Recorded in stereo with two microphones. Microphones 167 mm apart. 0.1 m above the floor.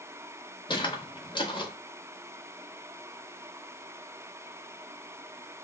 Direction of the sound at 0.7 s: 30° left (ahead or behind).